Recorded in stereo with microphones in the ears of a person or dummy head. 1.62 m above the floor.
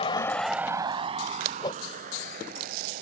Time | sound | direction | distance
0.0 | a vehicle | 35° left (ahead or behind) | ?
1.6 | a whoosh | 25° left (ahead or behind) | ?